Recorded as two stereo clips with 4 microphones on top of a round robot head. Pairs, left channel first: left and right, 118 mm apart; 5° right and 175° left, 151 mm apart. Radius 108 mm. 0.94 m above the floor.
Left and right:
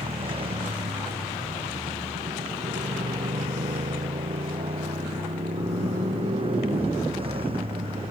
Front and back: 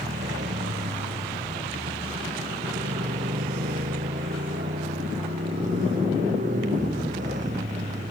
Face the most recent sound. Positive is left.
turn(degrees=-130)